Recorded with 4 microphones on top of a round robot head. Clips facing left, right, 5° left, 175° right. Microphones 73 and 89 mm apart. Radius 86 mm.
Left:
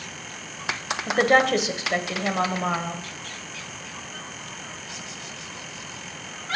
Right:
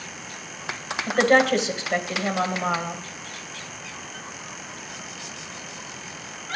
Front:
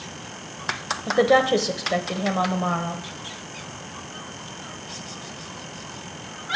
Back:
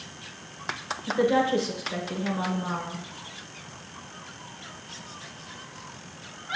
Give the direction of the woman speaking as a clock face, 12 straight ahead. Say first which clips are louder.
Right 1 dB, front 5 dB; 12 o'clock.